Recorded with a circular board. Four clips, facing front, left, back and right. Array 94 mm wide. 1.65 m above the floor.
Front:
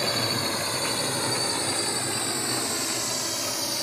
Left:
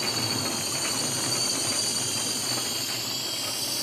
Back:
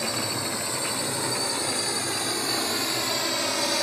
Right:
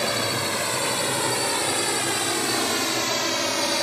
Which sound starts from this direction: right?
A drone, at 0.0 s.